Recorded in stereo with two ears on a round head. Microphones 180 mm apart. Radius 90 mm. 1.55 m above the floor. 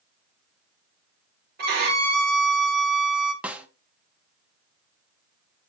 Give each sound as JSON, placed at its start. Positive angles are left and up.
{"t": 1.6, "sound": "a violin", "side_deg": -50, "distance_m": 1.9}
{"t": 3.4, "sound": "a snare drum", "side_deg": -5, "distance_m": 0.7}